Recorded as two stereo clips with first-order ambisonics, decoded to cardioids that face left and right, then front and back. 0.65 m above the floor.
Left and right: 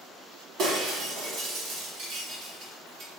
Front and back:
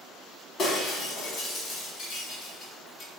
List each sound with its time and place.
0.6 s breaking glass: 55° right, 0.9 m